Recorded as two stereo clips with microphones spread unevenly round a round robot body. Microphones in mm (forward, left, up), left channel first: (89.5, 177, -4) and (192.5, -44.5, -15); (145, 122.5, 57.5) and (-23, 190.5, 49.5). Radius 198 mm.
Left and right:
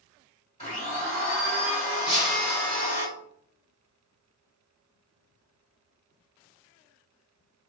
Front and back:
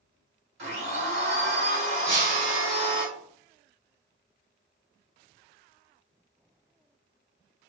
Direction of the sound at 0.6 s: 170° right.